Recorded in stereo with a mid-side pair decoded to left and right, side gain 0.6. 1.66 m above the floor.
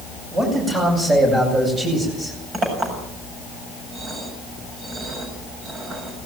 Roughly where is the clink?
Ahead right.